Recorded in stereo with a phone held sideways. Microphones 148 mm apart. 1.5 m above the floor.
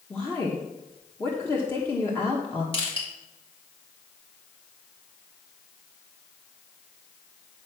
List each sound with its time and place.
0.1 s a woman speaking: 15° left (ahead or behind), 1.3 m
2.7 s crushing: 40° left (ahead or behind), 3.5 m